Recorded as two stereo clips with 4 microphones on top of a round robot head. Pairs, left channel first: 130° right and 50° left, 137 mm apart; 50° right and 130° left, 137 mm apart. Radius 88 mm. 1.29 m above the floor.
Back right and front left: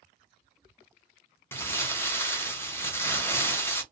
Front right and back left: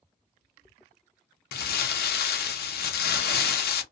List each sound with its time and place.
1.5 s crumpling: 55° right, 0.6 m